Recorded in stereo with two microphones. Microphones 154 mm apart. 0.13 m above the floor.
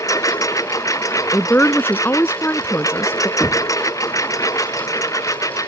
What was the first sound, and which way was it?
A lawn mower, 20° left (ahead or behind).